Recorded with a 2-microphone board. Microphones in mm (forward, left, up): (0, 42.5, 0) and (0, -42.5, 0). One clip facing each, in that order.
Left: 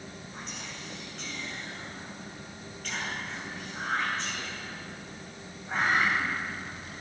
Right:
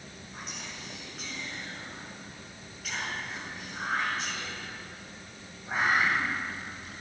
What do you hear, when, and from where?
0.3 s whispering: 5° right (ahead or behind), 3.5 m